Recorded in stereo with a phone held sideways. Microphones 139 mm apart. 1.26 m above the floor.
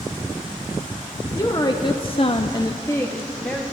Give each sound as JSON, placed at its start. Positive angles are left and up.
{"t": 1.4, "sound": "a woman speaking", "side_deg": 25, "distance_m": 1.1}